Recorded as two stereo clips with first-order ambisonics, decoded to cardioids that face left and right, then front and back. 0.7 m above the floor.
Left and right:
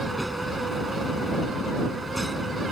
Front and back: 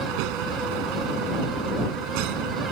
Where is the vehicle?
Straight behind.